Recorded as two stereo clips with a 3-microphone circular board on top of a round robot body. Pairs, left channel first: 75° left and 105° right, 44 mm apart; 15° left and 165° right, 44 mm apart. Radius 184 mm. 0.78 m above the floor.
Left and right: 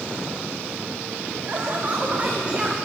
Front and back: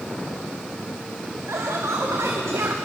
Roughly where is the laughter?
Behind right.